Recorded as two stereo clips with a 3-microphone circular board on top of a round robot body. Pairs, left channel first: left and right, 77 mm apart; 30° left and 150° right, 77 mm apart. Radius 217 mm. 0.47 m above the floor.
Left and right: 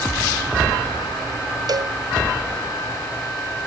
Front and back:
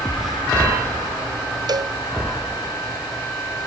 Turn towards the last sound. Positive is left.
turn(degrees=-125)